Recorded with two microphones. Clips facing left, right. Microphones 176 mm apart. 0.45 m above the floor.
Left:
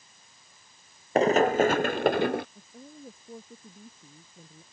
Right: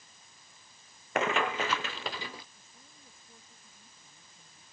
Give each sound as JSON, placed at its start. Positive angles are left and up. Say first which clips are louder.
{"t": 1.1, "sound": "running footsteps", "louder": "left 10 dB", "side_deg": 35}
{"t": 2.5, "sound": "a woman speaking", "louder": "left 14 dB", "side_deg": 60}